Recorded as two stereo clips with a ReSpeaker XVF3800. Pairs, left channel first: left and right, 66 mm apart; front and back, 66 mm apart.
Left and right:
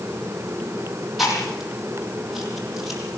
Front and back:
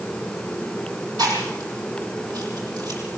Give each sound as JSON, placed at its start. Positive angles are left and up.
{"t": 1.2, "sound": "chewing", "azimuth_deg": 180, "distance_m": 8.5}